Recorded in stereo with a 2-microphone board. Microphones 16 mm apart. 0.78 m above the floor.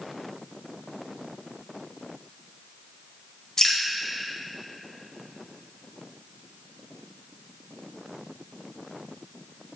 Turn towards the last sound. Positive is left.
turn(degrees=50)  # may be behind; listen again after turning